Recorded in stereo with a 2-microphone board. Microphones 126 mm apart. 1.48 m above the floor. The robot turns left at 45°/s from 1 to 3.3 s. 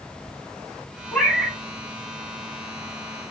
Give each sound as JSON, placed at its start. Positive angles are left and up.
{"t": 1.1, "sound": "a cat meowing", "side_deg": 10, "distance_m": 3.0}